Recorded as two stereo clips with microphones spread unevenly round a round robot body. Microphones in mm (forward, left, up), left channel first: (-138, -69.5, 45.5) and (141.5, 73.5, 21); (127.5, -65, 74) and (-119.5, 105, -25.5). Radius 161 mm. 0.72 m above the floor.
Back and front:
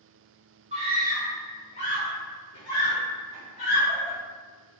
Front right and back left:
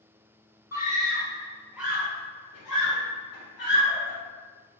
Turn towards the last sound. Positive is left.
turn(degrees=-125)